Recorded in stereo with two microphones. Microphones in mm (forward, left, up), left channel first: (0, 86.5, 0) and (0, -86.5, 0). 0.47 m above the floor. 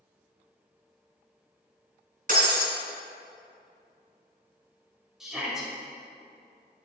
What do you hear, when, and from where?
2.3 s breaking glass: 55° right (ahead or behind), 1.7 m
5.2 s a shout: centre (ahead or behind), 2 m